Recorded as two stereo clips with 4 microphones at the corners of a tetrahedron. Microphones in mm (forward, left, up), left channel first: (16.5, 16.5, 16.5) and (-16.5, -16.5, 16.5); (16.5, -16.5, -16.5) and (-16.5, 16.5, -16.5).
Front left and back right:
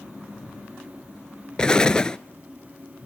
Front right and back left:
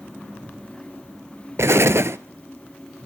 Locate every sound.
1.6 s an explosion: 115° left, 0.6 m